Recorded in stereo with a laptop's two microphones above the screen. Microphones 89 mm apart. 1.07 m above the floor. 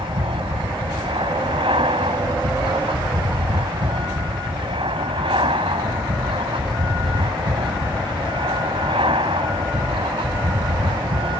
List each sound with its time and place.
0.0 s an aircraft: 70° right (ahead or behind)